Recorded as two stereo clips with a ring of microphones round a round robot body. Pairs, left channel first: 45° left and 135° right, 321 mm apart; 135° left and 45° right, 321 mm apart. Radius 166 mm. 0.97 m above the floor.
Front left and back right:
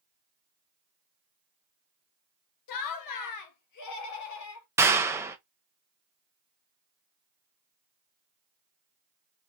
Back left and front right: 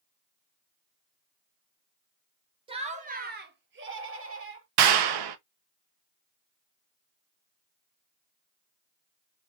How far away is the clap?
About 0.9 m.